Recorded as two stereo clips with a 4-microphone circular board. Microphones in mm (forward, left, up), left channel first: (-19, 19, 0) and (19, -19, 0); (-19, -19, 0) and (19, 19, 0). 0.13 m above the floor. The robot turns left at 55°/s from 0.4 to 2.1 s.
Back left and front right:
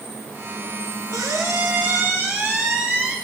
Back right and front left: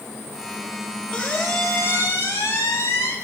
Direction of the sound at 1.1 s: 70° right.